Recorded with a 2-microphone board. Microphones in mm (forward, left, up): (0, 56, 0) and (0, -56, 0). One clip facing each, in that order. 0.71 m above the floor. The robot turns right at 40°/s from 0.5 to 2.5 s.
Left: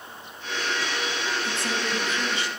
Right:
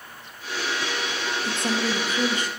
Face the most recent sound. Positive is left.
turn(degrees=-115)